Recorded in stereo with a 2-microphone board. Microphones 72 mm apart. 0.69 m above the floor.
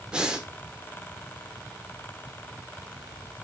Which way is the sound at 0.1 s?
10° right (ahead or behind).